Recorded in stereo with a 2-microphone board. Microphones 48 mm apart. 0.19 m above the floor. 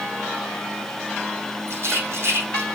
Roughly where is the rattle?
Right.